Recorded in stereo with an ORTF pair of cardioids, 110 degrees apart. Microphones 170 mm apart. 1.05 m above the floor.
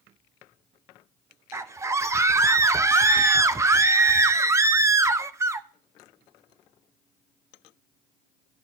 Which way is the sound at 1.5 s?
15° right.